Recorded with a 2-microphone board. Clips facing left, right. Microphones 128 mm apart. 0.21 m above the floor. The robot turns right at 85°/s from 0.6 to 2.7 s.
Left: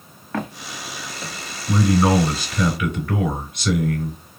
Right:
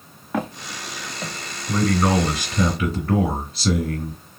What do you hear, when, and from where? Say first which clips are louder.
0.3 s footsteps: right 2 dB; 10° right (ahead or behind), 1.1 m; by 1.3 s 30° right (ahead or behind), 1.4 m
1.7 s a man speaking: left 2 dB; 140° left, 2 m; by 4.2 s 135° right, 2 m